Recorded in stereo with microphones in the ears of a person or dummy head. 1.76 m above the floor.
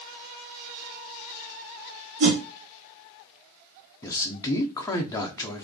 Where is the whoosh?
70° right (ahead or behind), 1.4 m.